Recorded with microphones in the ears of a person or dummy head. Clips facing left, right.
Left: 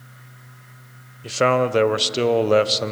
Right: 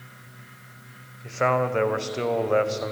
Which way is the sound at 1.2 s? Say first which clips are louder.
Left 5 dB; 50° left (ahead or behind).